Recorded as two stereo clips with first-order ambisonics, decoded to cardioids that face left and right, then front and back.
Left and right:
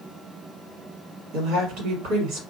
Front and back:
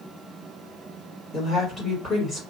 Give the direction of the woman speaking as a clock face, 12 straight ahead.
2 o'clock.